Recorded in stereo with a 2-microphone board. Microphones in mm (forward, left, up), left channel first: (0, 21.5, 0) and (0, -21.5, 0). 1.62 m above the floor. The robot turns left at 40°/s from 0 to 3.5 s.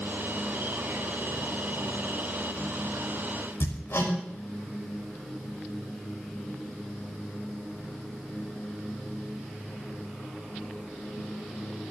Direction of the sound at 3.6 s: 80° left.